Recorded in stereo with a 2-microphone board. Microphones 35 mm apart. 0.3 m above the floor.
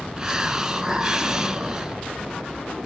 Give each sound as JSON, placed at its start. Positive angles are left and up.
{"t": 0.2, "sound": "a hiss", "side_deg": -20, "distance_m": 1.8}